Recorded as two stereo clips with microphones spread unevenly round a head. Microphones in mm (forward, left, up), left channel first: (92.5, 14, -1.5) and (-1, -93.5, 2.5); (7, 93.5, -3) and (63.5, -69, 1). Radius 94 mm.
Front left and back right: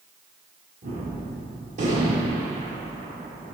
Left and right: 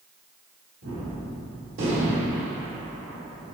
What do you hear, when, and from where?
0.8 s a gunshot: 95° right, 1.3 m